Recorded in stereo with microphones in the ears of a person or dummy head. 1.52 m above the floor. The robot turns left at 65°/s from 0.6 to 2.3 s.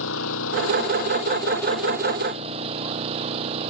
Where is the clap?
I don't hear a clap.